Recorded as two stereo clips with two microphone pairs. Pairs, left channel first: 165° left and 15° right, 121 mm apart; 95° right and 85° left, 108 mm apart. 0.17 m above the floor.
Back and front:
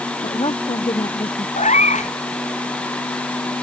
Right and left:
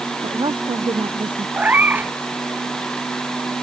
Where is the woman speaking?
125° left.